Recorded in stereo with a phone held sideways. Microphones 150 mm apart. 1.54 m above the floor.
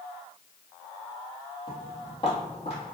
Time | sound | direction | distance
1.7 | footsteps | 35° left (ahead or behind) | 1.9 m